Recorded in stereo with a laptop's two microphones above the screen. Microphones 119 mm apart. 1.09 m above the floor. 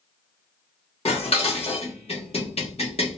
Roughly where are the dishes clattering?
Left.